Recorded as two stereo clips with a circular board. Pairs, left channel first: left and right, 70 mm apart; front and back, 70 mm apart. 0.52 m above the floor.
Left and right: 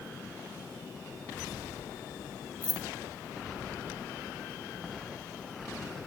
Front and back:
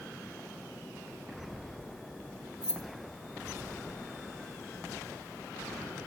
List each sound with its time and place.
2.6 s keys jangling: 100° left, 0.9 m